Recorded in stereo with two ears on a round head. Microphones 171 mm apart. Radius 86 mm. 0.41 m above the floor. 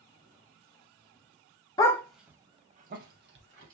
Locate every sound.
1.8 s a dog barking: 20° left (ahead or behind), 0.5 m; by 3.8 s 65° right (ahead or behind), 0.9 m